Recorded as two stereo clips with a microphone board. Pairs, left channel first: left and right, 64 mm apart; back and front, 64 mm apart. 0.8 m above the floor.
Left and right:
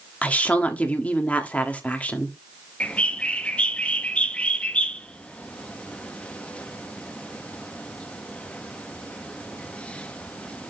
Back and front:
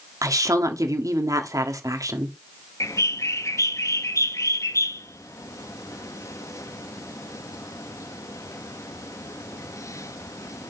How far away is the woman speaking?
About 1.5 m.